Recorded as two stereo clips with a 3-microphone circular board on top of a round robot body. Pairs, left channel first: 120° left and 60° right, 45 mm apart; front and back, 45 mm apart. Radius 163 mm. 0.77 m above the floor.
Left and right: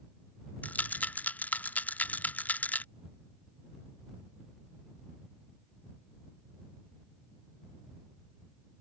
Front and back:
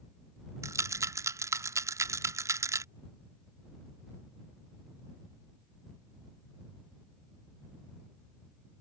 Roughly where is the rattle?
Behind.